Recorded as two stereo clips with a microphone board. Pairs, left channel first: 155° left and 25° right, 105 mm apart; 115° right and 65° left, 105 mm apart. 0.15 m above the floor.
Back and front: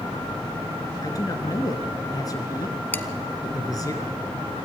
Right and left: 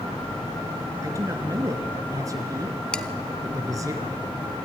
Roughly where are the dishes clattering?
Behind.